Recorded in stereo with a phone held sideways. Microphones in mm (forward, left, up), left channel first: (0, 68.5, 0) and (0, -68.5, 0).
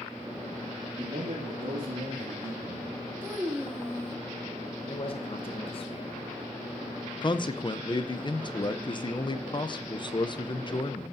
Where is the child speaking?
15° right (ahead or behind), 1.3 m.